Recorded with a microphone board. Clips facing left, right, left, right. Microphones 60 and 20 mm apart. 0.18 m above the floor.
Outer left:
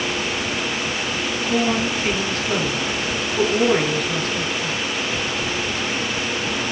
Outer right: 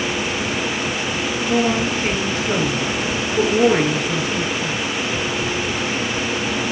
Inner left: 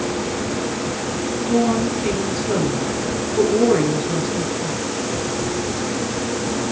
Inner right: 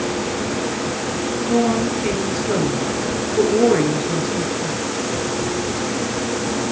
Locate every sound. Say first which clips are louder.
1.4 s a woman speaking: outer right 2 dB, even; 15° right (ahead or behind), 3.5 m